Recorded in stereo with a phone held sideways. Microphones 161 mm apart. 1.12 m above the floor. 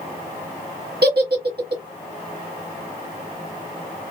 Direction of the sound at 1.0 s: 80° right.